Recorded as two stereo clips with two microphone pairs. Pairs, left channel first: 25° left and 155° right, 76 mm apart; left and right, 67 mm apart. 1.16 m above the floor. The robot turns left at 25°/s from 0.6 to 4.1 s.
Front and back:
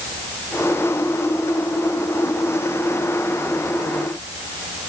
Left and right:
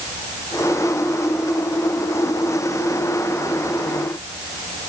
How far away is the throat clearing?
I don't hear throat clearing.